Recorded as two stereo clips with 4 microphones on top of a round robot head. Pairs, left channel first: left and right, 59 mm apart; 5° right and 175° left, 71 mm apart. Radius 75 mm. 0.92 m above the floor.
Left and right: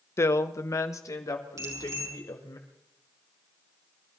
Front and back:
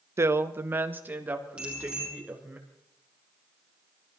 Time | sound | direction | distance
0.2 | a woman speaking | 130° left | 0.9 m
1.6 | a bicycle bell | 105° right | 6 m